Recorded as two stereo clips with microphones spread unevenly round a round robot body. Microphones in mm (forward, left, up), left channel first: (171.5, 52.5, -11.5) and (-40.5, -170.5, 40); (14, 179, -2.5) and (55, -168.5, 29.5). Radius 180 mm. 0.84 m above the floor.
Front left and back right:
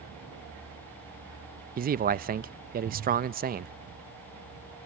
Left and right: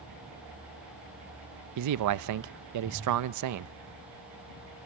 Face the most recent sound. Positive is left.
turn(degrees=-70)